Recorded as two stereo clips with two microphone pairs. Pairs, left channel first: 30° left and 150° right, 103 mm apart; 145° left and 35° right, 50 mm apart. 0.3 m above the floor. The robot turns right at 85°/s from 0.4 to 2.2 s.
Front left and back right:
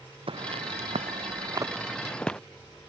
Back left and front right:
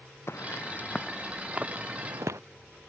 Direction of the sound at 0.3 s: Straight behind.